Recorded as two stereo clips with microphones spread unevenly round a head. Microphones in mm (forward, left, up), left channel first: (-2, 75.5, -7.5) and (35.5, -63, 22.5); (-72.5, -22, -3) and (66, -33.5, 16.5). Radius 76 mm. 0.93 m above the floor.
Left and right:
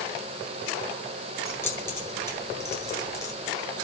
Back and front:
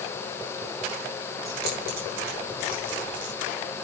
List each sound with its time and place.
1.4 s keys jangling: 30° left, 9.5 m; by 3.3 s 35° left, 9 m